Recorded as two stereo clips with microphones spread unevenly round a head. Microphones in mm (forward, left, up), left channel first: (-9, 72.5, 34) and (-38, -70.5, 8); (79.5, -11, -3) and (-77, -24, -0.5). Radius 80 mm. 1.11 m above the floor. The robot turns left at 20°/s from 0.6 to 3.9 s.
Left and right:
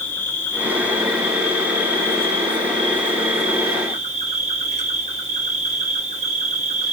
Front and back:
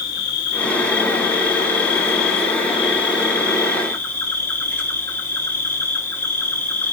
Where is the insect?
5° right, 1.1 m; by 7.0 s 70° right, 1.1 m.